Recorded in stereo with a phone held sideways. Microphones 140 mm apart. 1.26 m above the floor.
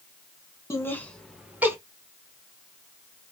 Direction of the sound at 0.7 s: 20° left (ahead or behind).